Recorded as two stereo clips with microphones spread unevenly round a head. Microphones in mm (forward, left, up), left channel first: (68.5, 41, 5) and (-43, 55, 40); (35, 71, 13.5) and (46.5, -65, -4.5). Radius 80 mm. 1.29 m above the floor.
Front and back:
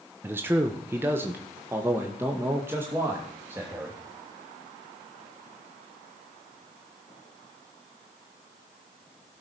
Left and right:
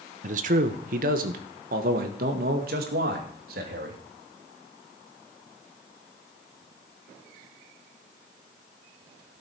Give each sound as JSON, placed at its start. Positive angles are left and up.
{"t": 0.2, "sound": "a man speaking", "azimuth_deg": -105, "distance_m": 1.0}